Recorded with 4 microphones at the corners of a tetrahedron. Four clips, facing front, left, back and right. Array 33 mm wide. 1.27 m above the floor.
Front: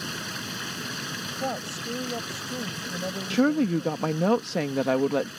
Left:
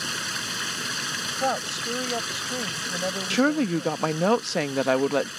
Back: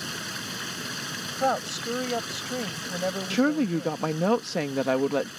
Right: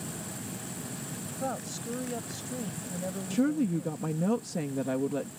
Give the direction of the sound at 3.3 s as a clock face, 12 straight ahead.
9 o'clock.